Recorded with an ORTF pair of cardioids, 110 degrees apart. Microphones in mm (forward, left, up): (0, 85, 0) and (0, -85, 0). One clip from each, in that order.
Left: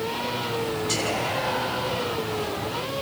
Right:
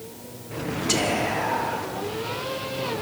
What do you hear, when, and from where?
0.9 s whispering: 35° right, 5 m